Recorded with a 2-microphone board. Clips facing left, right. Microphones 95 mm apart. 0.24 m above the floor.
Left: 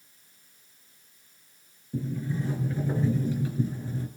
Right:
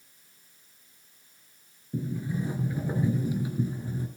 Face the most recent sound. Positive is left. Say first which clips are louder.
# even
turn(degrees=-15)  # may be behind; listen again after turning